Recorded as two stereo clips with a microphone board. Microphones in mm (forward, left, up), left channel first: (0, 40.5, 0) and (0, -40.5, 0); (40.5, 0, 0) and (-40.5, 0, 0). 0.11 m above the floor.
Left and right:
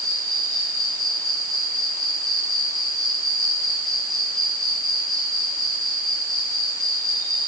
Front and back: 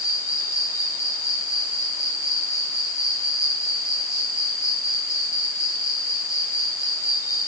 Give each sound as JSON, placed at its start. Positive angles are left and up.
{"t": 0.0, "sound": "an insect", "azimuth_deg": -50, "distance_m": 6.0}